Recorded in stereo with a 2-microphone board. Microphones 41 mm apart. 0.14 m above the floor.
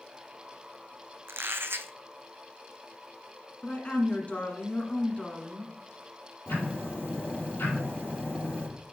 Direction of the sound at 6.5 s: 65° left (ahead or behind).